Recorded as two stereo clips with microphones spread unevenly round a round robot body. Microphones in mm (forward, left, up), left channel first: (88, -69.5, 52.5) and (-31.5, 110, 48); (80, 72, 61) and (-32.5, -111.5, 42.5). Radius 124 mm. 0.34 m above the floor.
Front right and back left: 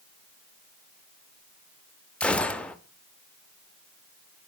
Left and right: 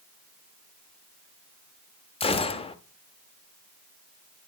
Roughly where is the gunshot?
Ahead left.